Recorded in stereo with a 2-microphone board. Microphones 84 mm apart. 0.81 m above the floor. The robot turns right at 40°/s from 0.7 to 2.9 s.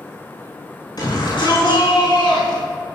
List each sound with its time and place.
1.0 s a shout: 55° left, 6.5 m; by 2.6 s 120° left, 6.5 m